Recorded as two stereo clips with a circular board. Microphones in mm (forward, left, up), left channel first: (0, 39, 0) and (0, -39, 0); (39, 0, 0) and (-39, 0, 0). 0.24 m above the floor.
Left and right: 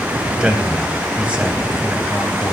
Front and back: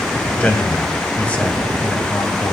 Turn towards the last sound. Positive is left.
turn(degrees=-40)